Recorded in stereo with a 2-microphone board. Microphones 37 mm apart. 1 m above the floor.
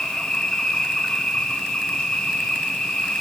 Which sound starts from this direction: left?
An insect, at 0.0 s.